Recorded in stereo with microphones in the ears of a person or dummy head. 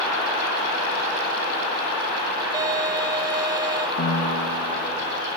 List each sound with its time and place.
2.5 s a violin: 20° right (ahead or behind), 1.3 m
4.0 s a piano: 75° left (ahead or behind), 7 m